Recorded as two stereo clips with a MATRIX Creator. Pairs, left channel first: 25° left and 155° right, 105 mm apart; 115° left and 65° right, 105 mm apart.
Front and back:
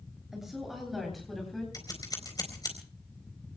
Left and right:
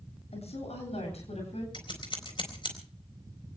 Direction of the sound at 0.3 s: 115° left.